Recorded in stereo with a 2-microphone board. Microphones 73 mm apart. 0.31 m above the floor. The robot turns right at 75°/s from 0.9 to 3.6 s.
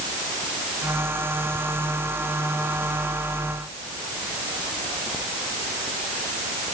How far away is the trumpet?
I don't hear a trumpet.